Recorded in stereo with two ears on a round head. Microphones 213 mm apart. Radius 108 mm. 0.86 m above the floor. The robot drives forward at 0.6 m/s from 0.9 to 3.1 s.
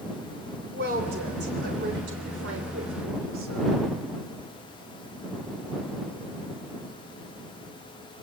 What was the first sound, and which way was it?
A woman speaking, 40° right (ahead or behind).